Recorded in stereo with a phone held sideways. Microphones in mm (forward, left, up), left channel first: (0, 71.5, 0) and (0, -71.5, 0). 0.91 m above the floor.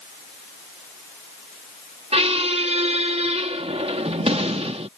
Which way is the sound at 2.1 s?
45° right (ahead or behind).